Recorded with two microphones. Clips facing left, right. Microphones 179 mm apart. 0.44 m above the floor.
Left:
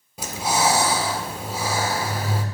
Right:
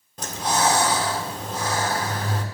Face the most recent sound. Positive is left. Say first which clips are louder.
# left 1 dB
turn(degrees=10)  # may be behind; listen again after turning